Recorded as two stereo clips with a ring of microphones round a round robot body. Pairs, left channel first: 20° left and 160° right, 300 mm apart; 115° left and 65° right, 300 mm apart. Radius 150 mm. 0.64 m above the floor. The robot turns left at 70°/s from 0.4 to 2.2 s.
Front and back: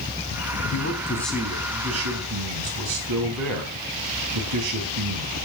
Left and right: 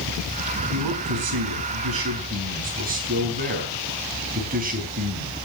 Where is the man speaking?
25° right, 4.5 m; by 5.3 s 130° right, 4.5 m.